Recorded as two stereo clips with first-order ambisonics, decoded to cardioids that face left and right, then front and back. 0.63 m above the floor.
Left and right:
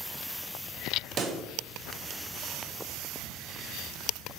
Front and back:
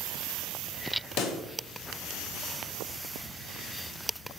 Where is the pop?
30° right, 0.5 m.